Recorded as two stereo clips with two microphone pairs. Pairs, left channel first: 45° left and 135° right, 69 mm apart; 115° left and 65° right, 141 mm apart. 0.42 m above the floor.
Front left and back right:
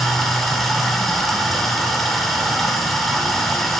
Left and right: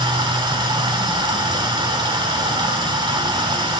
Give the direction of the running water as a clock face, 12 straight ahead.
1 o'clock.